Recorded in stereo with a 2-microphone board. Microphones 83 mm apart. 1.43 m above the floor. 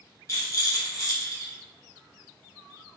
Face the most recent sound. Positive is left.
turn(degrees=40)  # may be behind; listen again after turning